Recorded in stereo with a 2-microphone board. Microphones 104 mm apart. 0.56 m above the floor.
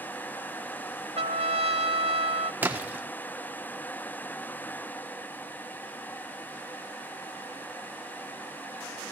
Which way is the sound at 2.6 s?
20° right (ahead or behind).